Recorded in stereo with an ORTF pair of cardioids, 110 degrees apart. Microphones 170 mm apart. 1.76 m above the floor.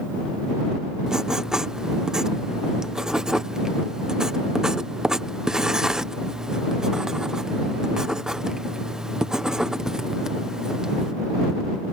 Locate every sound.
1.1 s writing: 5° right